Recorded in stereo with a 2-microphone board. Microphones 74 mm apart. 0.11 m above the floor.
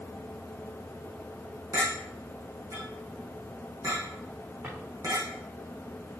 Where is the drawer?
25° right (ahead or behind), 3.5 m.